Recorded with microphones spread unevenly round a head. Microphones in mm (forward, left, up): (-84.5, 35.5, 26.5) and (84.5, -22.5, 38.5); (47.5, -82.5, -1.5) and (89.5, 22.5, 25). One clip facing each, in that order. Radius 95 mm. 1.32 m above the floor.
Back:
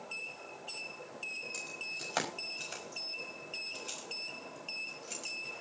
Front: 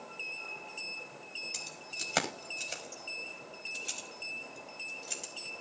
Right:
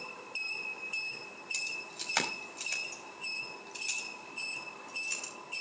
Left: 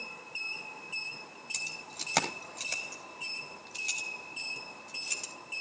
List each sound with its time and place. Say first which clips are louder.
1.5 s keys jangling: back 1 dB, left 1 dB; 35° left, 5.5 m; by 5.3 s 60° left, 5.5 m